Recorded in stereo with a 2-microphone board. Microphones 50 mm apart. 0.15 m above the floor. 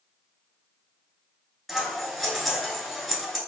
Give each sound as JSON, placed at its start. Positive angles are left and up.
{"t": 1.7, "sound": "scissors", "side_deg": 5, "distance_m": 1.3}